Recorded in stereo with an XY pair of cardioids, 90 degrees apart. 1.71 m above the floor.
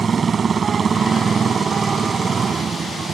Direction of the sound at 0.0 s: 50° right.